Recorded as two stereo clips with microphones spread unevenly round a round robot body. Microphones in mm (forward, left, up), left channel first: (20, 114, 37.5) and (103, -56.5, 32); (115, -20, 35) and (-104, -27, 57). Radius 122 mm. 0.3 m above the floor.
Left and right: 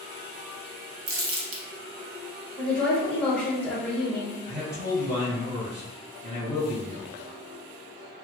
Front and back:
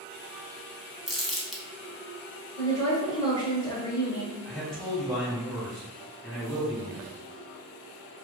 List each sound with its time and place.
1.1 s crumpling: 90° right, 0.5 m
2.6 s a woman speaking: 35° left, 1.0 m
4.5 s a man speaking: 80° right, 1.7 m